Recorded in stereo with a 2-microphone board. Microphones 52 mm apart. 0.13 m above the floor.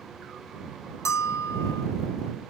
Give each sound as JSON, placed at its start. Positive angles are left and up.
{"t": 1.1, "sound": "a bell", "side_deg": 80}